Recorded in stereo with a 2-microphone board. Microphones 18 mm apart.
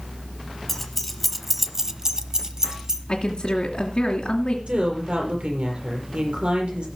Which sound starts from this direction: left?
A woman speaking, at 3.1 s.